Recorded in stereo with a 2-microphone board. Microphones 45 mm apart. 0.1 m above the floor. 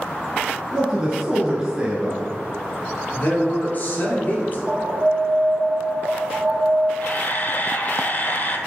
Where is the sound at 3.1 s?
40° left (ahead or behind), 1.8 m.